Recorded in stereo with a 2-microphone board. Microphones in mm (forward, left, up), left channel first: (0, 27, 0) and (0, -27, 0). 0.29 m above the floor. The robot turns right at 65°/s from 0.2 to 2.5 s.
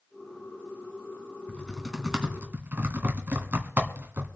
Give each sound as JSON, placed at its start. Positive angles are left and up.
{"t": 1.5, "sound": "typing on a keyboard", "side_deg": 30, "distance_m": 2.5}